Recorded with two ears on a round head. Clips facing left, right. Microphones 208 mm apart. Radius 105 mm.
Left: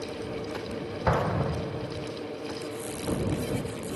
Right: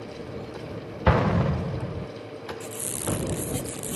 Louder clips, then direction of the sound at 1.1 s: Right 5 dB; 40° right (ahead or behind).